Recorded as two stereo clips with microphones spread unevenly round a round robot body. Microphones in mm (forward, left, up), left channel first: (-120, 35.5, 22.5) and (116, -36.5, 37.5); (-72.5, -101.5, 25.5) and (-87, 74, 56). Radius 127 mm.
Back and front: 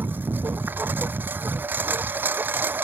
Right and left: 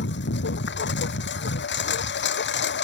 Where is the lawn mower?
100° right.